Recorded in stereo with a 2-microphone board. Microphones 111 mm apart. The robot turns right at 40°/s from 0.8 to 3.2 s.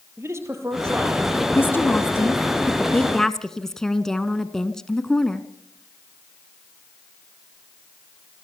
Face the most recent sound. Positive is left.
turn(degrees=5)  # may be behind; listen again after turning